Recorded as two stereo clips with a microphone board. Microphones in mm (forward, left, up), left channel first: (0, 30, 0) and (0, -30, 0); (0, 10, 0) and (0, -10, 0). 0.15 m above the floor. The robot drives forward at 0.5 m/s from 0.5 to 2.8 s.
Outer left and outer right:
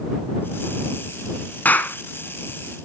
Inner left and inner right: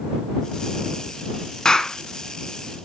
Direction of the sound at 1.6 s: 35° left (ahead or behind).